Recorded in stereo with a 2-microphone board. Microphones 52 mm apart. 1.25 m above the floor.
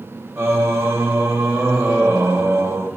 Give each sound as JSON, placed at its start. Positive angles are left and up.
{"t": 0.4, "sound": "singing", "side_deg": -60, "distance_m": 1.4}